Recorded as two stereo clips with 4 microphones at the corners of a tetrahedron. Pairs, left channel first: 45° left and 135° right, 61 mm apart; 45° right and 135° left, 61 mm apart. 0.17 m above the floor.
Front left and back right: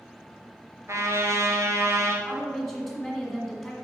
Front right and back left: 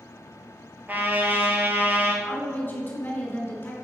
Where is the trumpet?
170° right, 1.3 m.